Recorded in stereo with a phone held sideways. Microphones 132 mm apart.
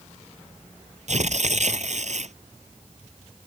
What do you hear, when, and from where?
1.1 s tearing paper: 60° right (ahead or behind)